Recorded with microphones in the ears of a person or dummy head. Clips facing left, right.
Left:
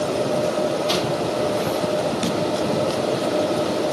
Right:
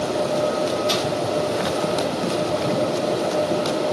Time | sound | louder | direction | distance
0.9 | crushing | left 1 dB | 15° right (ahead or behind) | 4 m